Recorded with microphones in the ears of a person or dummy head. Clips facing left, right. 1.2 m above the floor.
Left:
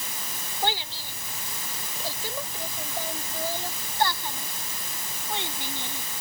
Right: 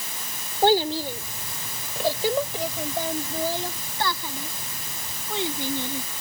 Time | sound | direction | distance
0.6 | a child speaking | 35° right (ahead or behind) | ?